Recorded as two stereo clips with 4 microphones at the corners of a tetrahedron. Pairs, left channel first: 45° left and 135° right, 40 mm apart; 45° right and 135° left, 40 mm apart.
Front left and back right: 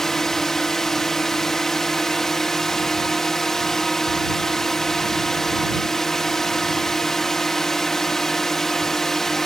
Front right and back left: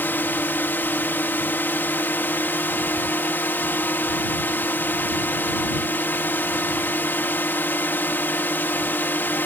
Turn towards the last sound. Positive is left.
turn(degrees=-35)